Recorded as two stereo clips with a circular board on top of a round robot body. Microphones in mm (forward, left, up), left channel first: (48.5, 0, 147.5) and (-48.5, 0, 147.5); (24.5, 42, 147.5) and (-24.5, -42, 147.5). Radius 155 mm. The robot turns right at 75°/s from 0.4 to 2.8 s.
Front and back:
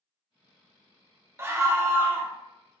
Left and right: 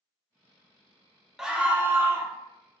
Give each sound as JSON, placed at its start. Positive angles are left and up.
{"t": 1.4, "sound": "a scream", "azimuth_deg": 160, "distance_m": 1.0}